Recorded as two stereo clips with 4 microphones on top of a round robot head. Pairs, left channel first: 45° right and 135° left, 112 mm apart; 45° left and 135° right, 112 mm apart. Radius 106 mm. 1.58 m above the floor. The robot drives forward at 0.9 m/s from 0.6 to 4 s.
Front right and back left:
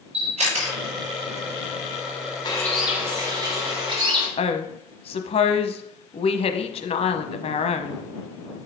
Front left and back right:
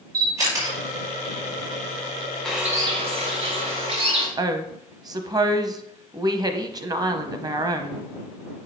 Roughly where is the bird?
Ahead right.